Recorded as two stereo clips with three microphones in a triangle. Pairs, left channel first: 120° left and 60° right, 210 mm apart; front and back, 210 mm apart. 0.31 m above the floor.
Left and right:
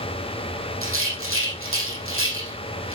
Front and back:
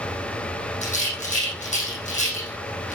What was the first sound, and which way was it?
A rattle, 55° right.